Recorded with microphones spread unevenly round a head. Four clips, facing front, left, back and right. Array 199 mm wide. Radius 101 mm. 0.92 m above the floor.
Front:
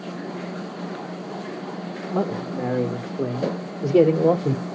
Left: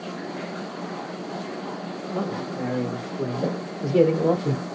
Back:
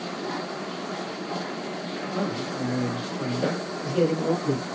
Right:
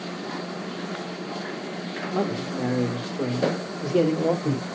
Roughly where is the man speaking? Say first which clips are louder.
Right 2 dB, front 5 dB; ahead.